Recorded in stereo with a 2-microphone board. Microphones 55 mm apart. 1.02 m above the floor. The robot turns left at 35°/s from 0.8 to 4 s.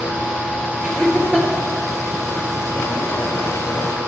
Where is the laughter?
35° right (ahead or behind), 1.1 m; by 1.5 s 15° right (ahead or behind), 1.1 m.